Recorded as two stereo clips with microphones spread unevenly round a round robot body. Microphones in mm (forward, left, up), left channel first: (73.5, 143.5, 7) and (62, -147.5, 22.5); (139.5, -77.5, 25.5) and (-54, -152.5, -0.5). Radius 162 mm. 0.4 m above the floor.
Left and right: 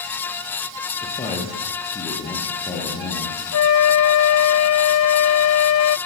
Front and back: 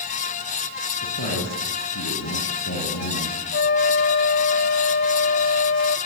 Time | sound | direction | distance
1.0 | a man speaking | 20° left | 10 m
3.5 | a flute | 55° left | 0.5 m